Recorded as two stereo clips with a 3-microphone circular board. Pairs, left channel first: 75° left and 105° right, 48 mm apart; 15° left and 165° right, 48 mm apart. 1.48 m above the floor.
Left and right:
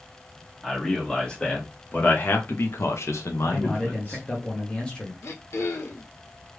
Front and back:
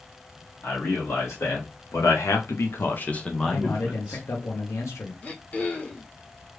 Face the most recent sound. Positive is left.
turn(degrees=70)